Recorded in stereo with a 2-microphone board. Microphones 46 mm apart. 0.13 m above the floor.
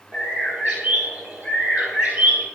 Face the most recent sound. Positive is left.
turn(degrees=-40)  # may be behind; listen again after turning